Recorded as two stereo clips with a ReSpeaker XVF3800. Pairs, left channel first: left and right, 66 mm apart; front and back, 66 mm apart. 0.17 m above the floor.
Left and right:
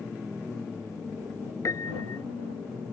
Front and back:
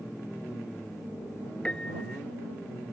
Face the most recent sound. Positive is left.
turn(degrees=70)